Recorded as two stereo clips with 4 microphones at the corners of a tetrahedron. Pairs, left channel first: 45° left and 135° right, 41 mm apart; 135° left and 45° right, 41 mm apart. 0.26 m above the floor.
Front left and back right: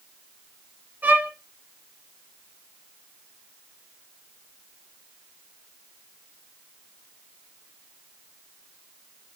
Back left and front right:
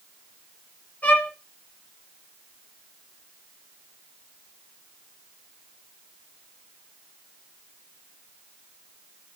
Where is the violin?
175° right, 5 m.